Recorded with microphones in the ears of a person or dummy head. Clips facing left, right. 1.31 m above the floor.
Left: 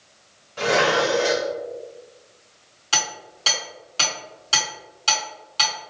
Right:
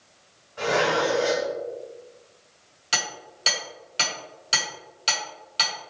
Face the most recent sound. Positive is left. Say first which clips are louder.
# left 3 dB
turn(degrees=-20)  # may be behind; listen again after turning